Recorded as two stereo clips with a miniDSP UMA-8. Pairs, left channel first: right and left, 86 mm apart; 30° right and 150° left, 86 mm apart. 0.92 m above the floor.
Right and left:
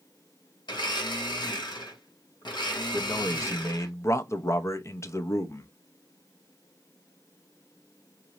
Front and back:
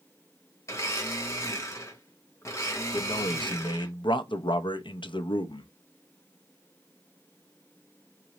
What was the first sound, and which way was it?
A blender, 80° right.